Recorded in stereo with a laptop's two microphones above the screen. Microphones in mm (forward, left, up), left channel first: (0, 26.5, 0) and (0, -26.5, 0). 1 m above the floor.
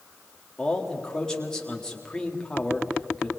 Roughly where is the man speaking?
Centre.